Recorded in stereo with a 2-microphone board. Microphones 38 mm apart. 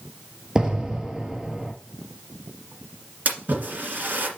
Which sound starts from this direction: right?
A splash, at 3.2 s.